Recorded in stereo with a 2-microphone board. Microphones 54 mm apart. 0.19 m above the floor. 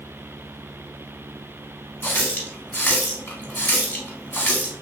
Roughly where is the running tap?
Left.